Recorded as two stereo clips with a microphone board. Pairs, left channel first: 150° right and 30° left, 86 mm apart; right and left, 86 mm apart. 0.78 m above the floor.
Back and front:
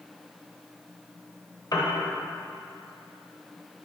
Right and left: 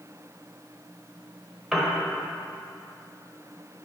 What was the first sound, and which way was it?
A piano, 175° left.